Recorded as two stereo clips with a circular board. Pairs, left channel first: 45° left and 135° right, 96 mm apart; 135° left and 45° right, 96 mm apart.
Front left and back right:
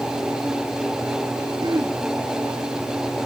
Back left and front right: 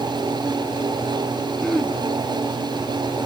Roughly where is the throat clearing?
Behind right.